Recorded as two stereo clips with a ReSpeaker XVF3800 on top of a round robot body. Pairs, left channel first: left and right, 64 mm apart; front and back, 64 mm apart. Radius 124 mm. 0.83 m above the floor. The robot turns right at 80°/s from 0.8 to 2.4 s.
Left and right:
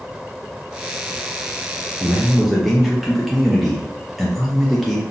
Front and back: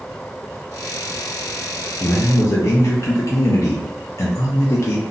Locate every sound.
2.0 s a man speaking: 30° right, 0.6 m; by 5.0 s straight ahead, 0.6 m